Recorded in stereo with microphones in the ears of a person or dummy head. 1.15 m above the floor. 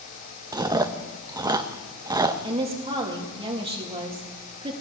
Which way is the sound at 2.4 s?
25° right (ahead or behind).